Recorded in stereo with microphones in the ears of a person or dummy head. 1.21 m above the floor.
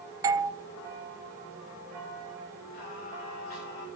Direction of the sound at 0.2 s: 15° right (ahead or behind).